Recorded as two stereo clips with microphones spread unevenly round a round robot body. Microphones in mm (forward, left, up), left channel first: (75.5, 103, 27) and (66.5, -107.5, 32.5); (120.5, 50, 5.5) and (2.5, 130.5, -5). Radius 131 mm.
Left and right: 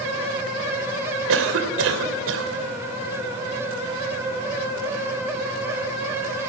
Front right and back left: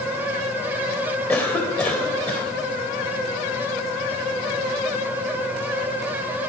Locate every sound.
1.3 s a cough: 115° right, 3 m